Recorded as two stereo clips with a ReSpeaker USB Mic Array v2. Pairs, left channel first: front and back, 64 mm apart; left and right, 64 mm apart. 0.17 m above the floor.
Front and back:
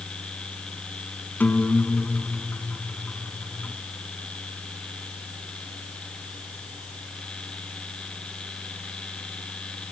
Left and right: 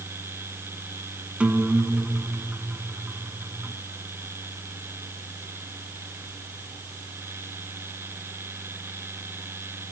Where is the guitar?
35° right, 1.7 m.